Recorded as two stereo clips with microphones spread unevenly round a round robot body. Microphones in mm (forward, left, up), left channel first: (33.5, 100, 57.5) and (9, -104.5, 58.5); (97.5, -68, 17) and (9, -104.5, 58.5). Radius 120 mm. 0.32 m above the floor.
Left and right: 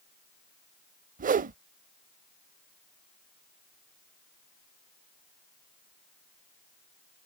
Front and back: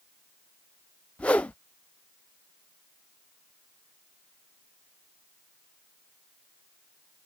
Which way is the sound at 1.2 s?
45° right.